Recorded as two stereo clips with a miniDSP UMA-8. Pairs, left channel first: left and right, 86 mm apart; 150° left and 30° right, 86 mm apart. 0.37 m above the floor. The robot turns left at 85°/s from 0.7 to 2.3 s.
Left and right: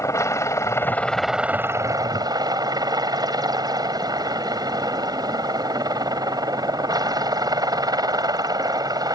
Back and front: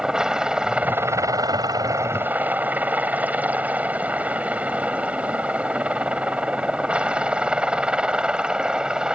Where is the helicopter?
50° left; by 9.2 s 110° right.